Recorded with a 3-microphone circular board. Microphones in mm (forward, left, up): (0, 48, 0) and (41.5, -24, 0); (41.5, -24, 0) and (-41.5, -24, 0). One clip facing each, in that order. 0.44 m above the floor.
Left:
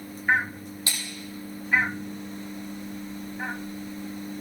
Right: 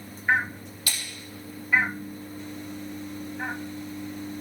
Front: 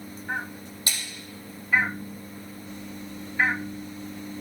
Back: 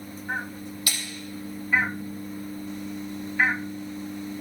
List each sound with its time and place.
0.9 s a splash: 60° left, 6 m